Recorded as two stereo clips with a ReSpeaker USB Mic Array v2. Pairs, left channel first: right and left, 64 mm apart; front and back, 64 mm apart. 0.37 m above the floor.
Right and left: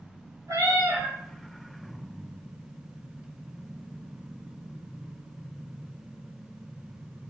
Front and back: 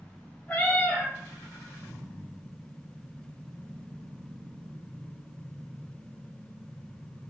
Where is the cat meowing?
65° left, 1.1 m.